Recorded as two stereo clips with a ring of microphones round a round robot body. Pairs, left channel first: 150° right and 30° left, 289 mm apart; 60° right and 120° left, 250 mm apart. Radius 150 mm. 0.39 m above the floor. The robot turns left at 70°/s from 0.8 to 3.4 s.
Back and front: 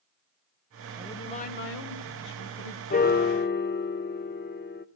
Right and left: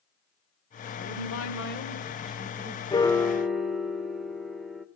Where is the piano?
115° right, 0.8 m; by 4.9 s 150° right, 0.8 m.